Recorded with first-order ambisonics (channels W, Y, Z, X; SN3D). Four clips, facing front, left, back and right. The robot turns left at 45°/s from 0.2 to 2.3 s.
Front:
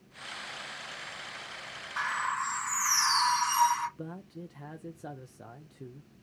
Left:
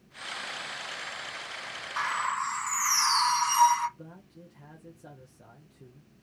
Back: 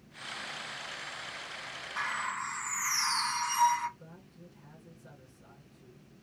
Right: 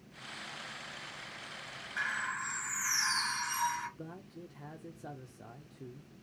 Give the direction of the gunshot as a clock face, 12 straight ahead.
I don't hear a gunshot.